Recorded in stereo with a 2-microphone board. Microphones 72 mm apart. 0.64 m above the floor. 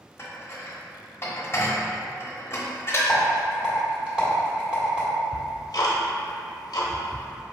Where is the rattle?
15° right (ahead or behind), 1.5 m.